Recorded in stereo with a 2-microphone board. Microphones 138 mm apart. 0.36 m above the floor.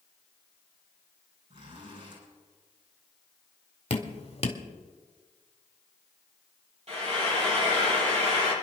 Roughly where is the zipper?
Right.